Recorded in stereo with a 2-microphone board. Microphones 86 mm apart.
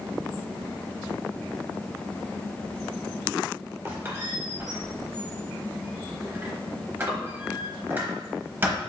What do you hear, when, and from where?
3.9 s a squeak: 25° right (ahead or behind), 0.9 m